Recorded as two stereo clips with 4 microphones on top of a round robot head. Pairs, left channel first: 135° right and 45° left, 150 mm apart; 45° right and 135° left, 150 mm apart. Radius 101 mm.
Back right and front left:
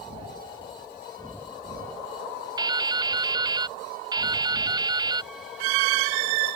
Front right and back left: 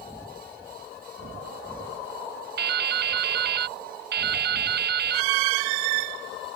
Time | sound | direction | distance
2.6 | dripping | 115° left | ?